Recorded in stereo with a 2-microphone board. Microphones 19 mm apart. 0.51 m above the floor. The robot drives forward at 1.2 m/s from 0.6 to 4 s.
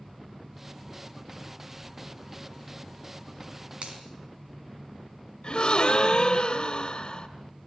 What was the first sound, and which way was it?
A finger snap, 80° right.